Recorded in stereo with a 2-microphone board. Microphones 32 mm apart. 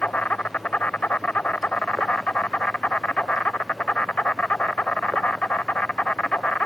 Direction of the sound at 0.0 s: 55° left (ahead or behind).